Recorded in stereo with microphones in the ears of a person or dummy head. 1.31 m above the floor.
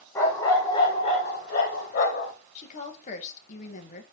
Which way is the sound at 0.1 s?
15° left (ahead or behind).